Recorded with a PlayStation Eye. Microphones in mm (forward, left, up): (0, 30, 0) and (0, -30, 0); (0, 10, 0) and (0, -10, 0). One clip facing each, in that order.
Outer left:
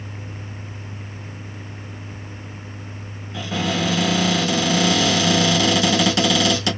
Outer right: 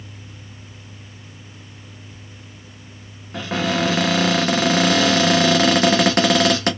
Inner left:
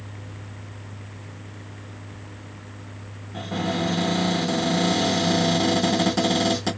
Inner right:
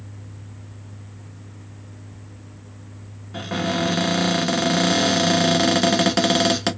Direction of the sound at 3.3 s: 45° right (ahead or behind).